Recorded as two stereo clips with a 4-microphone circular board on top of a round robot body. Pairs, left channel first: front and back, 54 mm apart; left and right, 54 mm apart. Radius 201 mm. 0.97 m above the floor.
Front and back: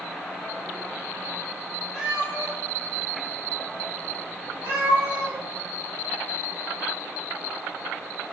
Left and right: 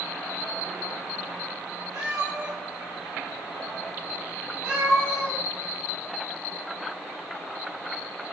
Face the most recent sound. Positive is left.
turn(degrees=-150)